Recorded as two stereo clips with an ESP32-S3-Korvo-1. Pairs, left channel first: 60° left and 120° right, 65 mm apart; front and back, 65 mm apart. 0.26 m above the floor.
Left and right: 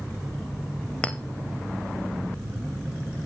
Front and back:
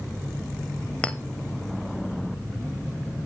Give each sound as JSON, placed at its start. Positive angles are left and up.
{"t": 1.0, "sound": "a clink", "azimuth_deg": 30, "distance_m": 0.6}